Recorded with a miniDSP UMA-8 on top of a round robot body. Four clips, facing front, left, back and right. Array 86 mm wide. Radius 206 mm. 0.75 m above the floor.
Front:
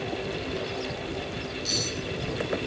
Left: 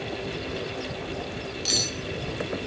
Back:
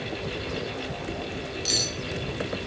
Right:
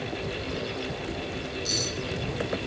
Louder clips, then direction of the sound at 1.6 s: Even, even; 115° left.